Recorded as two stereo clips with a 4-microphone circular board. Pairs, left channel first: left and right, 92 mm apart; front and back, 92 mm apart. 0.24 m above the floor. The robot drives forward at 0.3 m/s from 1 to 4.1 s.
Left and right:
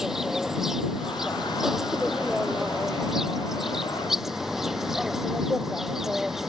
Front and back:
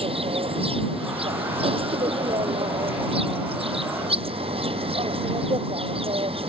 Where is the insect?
175° right.